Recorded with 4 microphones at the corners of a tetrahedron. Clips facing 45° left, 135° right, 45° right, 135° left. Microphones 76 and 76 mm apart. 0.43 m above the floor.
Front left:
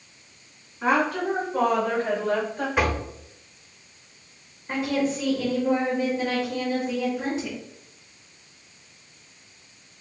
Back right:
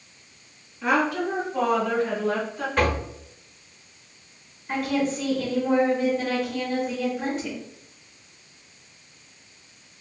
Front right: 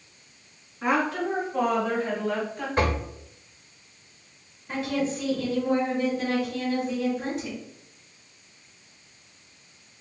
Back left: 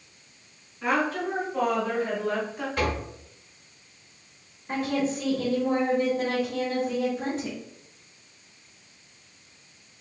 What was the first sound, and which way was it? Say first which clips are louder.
A woman speaking: even, front right 1 dB; 20° left.